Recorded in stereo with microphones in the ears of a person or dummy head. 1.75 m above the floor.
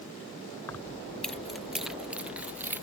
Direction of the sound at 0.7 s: 15° left (ahead or behind).